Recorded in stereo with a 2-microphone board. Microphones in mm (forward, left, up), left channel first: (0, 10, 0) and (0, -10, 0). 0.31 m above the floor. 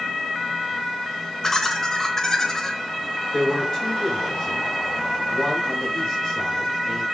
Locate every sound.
1.4 s laughter: 25° left (ahead or behind), 0.9 m
3.3 s a man speaking: 35° left (ahead or behind), 5 m